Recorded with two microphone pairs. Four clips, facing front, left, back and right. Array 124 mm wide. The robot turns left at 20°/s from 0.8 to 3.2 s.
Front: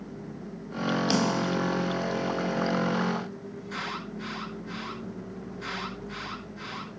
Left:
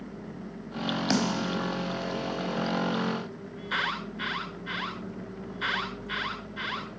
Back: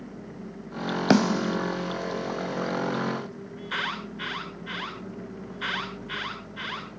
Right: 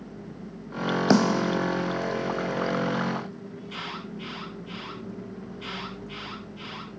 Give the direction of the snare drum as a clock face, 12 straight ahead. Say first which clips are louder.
Right 7 dB, back 8 dB; 4 o'clock.